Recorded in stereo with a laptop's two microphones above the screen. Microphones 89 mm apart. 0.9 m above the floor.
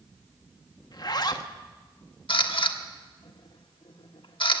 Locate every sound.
0.9 s a zipper: 50° left (ahead or behind), 1.0 m
2.3 s a camera shutter: 75° left (ahead or behind), 1.2 m